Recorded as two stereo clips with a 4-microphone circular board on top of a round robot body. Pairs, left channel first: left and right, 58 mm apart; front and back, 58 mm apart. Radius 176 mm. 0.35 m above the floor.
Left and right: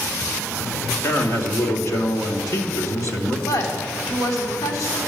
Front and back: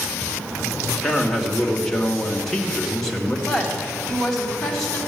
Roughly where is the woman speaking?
Left.